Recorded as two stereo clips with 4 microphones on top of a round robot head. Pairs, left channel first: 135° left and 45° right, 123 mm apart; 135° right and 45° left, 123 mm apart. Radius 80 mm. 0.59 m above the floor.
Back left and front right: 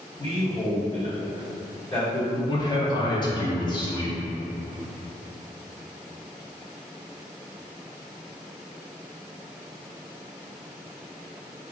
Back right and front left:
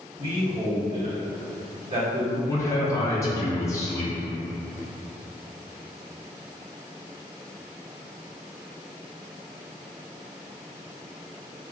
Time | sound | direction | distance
0.2 | a man speaking | 95° left | 1.9 m
2.5 | a man speaking | 170° left | 0.7 m